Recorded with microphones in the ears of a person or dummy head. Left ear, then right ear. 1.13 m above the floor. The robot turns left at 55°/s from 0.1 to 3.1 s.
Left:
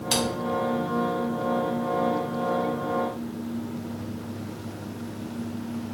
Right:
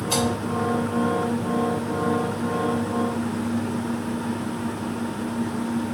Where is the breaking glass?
I don't hear breaking glass.